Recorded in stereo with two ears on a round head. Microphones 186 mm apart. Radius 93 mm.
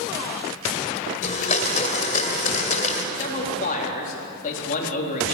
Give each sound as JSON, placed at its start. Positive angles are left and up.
{"t": 1.2, "sound": "a blender", "side_deg": 35, "distance_m": 2.0}
{"t": 3.1, "sound": "a man speaking", "side_deg": 40, "distance_m": 4.0}